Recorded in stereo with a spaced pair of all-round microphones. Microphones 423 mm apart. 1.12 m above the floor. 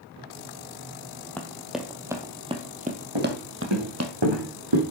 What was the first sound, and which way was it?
Running footsteps, 5° left (ahead or behind).